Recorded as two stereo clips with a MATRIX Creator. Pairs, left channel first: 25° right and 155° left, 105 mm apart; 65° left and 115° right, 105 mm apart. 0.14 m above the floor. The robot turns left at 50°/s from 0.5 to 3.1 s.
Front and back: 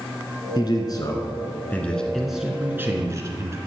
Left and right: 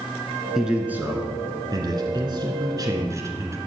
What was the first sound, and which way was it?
A man speaking, 30° right.